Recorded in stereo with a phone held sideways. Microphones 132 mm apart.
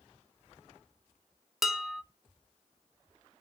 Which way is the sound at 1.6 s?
Centre (ahead or behind).